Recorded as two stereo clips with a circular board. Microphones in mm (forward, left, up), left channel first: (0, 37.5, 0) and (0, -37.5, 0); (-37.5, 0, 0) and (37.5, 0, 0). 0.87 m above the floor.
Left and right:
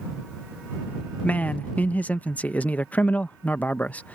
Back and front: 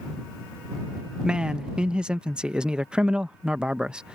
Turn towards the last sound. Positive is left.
turn(degrees=60)